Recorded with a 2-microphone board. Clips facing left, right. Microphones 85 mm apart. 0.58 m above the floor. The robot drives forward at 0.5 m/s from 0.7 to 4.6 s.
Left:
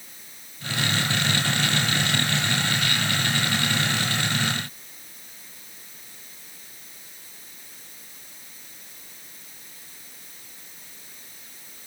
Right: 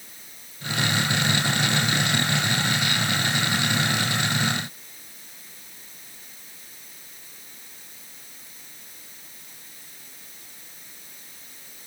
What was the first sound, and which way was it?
Only background noise.